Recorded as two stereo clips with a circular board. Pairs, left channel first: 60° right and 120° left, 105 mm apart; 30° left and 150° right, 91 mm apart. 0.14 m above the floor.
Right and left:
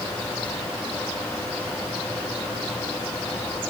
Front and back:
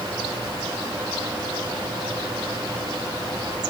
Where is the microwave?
No microwave in this recording.